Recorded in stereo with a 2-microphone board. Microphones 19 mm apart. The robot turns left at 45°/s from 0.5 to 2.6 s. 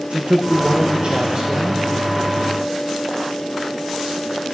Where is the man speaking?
85° right, 0.7 m; by 1.9 s 150° right, 0.7 m.